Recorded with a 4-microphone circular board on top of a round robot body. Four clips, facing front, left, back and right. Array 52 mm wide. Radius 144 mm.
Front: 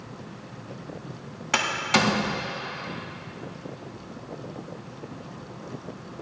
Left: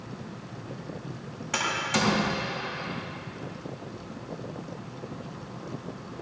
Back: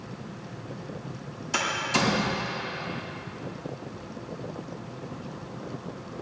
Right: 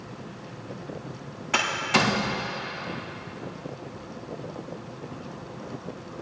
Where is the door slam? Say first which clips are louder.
Right 4 dB, front 3 dB; 15° right, 6.5 m.